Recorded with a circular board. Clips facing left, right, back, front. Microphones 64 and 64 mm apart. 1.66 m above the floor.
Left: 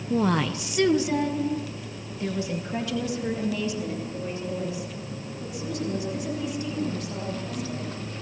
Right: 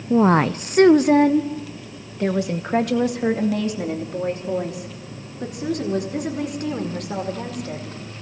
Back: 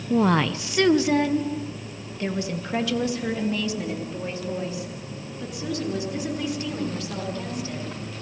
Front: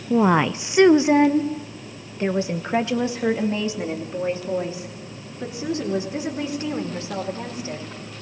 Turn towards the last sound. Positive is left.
turn(degrees=-65)